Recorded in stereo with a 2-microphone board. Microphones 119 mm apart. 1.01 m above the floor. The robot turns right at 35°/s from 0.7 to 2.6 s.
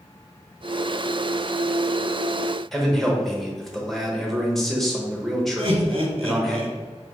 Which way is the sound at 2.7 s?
Centre (ahead or behind).